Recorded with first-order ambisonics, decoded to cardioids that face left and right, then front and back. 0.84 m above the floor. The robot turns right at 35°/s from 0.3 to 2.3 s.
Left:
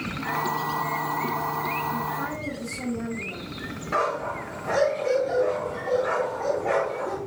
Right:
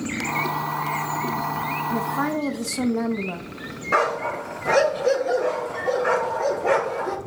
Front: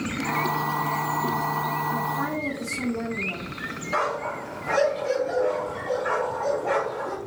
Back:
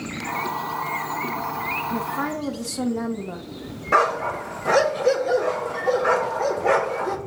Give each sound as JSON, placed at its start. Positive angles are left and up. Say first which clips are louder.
{"t": 1.9, "sound": "a woman speaking", "louder": "right 4 dB, even", "azimuth_deg": -135, "distance_m": 0.7}
{"t": 3.9, "sound": "a dog barking", "louder": "right 4 dB, back 7 dB", "azimuth_deg": -155, "distance_m": 1.0}